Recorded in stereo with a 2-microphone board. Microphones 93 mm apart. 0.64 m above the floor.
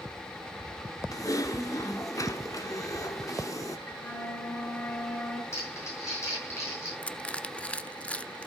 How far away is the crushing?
About 0.5 m.